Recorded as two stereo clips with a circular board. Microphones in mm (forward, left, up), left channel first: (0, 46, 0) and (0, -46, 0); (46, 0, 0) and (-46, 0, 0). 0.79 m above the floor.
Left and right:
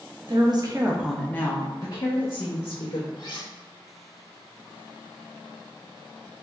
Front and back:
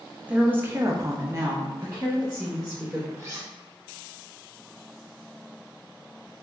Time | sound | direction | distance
0.2 | a woman speaking | 105° right | 1.1 m
3.2 | cutlery clinking | 125° left | 1.3 m